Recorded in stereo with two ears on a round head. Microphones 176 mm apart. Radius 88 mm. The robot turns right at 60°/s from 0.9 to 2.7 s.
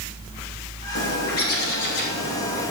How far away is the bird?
About 6 m.